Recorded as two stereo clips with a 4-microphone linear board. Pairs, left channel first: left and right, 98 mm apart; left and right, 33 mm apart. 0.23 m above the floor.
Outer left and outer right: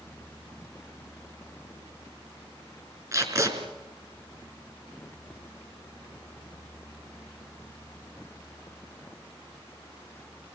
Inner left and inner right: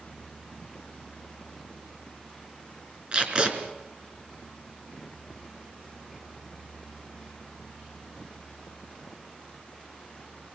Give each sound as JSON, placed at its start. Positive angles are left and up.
{"t": 3.1, "sound": "tape being pulled", "side_deg": -30, "distance_m": 4.0}